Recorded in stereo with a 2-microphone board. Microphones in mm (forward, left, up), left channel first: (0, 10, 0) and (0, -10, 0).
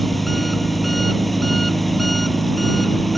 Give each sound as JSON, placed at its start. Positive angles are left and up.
{"t": 0.0, "sound": "an engine running", "side_deg": 5}